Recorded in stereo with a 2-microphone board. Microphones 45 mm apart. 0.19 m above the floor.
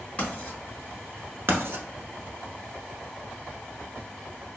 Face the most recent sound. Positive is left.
turn(degrees=-65)  # may be behind; listen again after turning